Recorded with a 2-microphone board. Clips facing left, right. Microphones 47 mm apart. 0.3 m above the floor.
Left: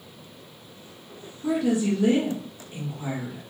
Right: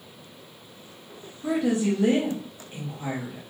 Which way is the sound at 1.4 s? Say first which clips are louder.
Even; 35° right (ahead or behind).